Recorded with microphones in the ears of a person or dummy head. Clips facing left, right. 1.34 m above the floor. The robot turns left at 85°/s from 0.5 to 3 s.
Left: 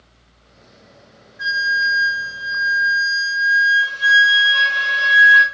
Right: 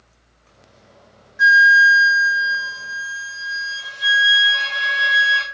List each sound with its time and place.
1.4 s a flute: 75° right, 0.6 m; by 5.4 s 150° left, 0.6 m